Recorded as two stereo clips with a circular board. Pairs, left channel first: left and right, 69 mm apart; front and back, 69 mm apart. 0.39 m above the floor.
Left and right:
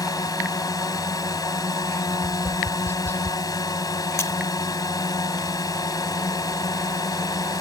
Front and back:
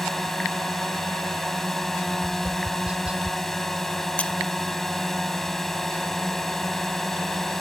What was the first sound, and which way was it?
A drone, 85° left.